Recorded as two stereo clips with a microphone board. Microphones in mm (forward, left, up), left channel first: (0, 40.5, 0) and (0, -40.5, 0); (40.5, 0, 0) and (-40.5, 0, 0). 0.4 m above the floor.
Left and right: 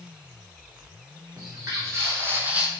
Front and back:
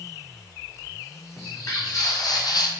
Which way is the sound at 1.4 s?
40° right.